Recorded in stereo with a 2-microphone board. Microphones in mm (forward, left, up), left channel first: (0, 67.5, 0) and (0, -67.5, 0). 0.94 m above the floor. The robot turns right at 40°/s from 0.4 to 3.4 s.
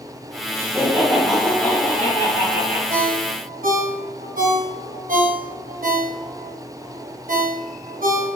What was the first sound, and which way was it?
Laughter, 25° right.